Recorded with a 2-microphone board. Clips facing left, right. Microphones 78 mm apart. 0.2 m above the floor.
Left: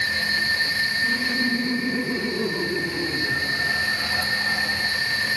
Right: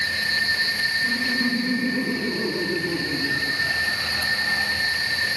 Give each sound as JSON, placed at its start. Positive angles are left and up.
{"t": 1.0, "sound": "laughter", "side_deg": -5, "distance_m": 9.5}